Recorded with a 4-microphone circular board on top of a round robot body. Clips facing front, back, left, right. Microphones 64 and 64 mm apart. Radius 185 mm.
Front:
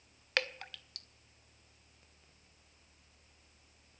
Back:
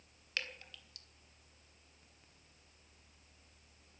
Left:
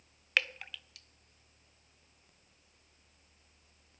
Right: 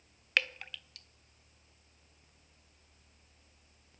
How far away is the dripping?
About 0.9 m.